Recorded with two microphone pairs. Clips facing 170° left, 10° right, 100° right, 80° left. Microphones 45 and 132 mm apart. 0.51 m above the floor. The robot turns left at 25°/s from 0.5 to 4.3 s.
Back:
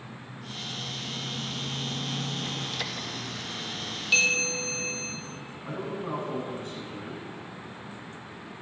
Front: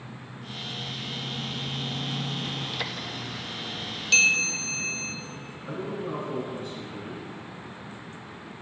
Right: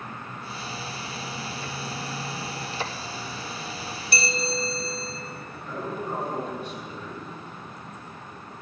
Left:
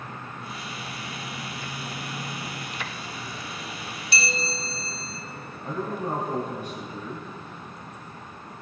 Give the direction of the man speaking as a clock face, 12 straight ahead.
8 o'clock.